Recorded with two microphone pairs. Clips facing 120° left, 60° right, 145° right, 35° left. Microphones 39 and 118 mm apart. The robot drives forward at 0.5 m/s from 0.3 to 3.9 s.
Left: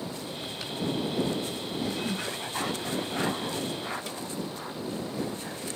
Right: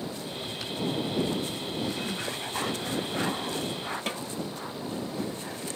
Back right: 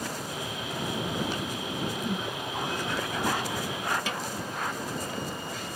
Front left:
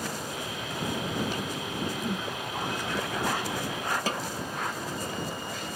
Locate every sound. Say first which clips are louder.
2.0 s a whoosh: left 1 dB, even; 125° left; by 2.3 s 135° left
4.1 s a snare drum: right 4 dB, front left 2 dB; 20° right